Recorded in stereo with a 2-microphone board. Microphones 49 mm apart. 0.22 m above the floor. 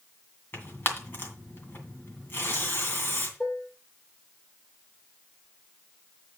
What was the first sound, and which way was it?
Tearing paper, 45° left (ahead or behind).